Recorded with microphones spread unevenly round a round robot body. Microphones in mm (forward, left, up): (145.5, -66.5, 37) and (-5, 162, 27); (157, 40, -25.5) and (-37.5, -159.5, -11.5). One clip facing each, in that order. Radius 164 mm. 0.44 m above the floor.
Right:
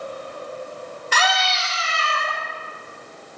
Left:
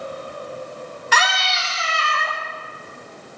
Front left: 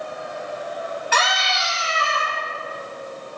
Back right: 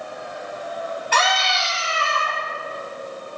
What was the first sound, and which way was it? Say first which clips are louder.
A scream: right 2 dB, back right 2 dB; 130° left.